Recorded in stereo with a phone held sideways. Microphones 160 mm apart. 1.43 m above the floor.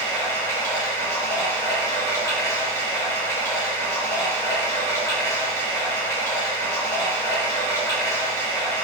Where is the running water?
15° left (ahead or behind), 1.4 m.